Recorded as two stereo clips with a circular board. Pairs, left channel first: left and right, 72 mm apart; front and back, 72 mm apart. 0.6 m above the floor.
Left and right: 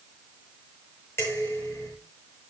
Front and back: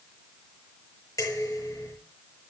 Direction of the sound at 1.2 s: 40° left.